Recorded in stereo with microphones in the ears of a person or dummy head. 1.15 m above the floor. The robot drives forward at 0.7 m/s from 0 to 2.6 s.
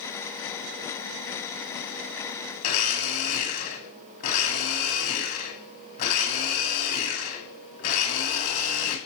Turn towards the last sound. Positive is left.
turn(degrees=45)  # may be behind; listen again after turning